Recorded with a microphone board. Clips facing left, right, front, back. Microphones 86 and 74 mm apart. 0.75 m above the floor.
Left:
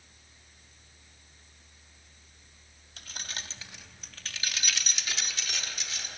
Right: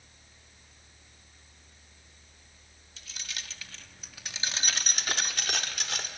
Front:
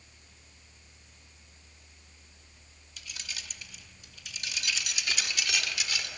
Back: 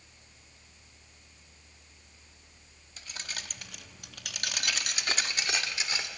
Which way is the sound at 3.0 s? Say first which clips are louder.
Left 3 dB, back 2 dB; 125° left.